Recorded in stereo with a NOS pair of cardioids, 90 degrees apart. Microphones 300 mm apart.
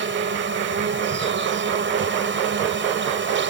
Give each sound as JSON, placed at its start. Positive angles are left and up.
{"t": 0.0, "sound": "an insect", "azimuth_deg": -35}